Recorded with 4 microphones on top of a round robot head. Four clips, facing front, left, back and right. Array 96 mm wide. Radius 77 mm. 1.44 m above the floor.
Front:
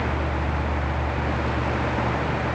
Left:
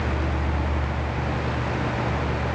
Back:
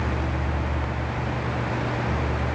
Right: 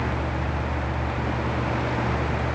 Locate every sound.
Only background noise.